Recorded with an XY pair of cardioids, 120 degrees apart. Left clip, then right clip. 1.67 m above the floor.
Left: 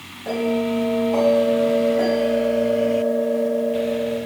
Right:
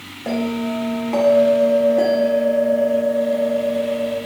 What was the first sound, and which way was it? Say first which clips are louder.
A bell: left 2 dB; 50° right.